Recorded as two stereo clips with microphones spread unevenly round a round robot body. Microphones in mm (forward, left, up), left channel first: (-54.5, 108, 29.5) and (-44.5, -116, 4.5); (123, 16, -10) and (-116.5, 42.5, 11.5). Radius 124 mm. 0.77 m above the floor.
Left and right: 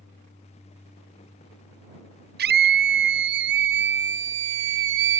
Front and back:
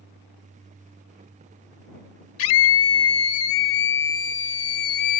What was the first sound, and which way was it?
A scream, 35° right.